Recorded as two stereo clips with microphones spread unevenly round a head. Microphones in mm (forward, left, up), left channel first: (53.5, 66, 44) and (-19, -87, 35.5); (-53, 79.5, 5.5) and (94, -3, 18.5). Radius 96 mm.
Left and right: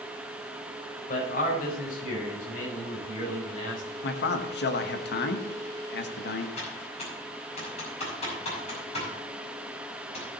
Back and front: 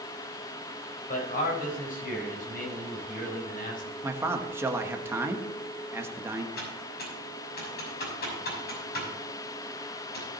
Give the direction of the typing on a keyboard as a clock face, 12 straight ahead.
8 o'clock.